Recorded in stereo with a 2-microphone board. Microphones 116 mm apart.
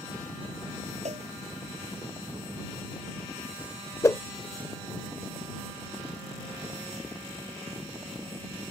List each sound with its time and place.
1.1 s a cowbell: 75° right (ahead or behind)
4.0 s a whoosh: 25° left (ahead or behind)